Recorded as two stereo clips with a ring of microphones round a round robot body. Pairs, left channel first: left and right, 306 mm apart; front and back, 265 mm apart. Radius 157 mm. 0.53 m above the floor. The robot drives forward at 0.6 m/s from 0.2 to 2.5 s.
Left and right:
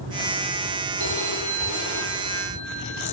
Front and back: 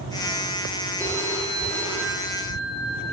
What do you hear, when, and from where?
1.0 s a phone ringing: 100° right, 10 m; by 3.1 s 105° right, 10 m